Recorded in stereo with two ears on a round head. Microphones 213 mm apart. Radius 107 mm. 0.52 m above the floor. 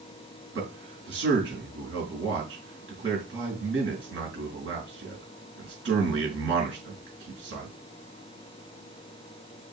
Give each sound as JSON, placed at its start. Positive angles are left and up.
{"t": 0.6, "sound": "a man speaking", "side_deg": -50, "distance_m": 5.5}